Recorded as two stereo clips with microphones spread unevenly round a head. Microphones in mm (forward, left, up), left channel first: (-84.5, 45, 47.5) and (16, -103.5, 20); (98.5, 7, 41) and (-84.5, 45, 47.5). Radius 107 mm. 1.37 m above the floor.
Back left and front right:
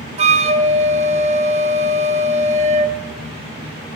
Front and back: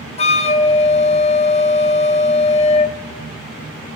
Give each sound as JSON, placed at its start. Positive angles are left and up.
{"t": 0.2, "sound": "a flute", "azimuth_deg": -20, "distance_m": 0.6}